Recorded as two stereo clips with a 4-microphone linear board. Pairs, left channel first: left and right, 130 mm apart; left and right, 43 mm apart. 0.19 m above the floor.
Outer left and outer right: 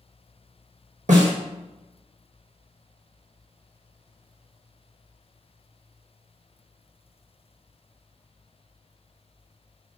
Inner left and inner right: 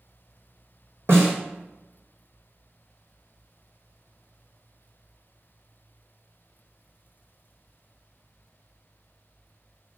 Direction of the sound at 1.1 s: 75° right (ahead or behind).